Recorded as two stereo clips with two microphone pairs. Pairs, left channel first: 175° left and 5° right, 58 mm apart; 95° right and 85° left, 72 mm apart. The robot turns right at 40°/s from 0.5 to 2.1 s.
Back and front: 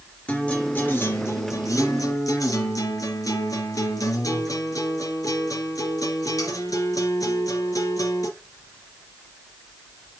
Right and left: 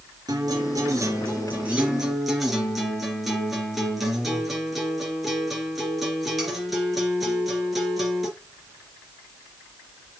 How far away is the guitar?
About 3.5 m.